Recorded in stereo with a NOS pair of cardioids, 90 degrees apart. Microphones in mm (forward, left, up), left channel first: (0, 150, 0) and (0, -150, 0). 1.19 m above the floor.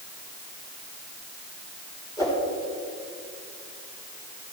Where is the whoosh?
10° left, 5 m.